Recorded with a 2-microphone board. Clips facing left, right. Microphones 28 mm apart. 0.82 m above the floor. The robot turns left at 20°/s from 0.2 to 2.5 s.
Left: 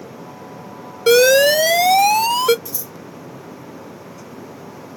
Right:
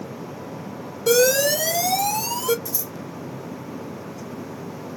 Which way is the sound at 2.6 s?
30° left (ahead or behind).